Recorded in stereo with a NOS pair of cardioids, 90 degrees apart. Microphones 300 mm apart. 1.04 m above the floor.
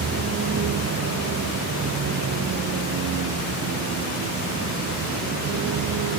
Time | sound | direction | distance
0.0 | a vehicle | 55° right | ?